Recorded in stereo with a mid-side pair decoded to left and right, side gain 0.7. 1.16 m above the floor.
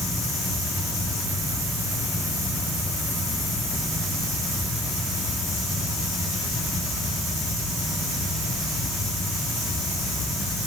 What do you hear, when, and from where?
0.0 s a fan: 15° left, 4 m